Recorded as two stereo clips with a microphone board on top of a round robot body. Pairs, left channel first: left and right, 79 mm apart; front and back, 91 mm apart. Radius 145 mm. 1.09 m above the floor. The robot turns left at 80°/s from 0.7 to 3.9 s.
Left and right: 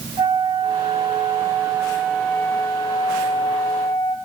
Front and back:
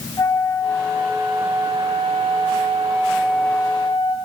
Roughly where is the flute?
Ahead right.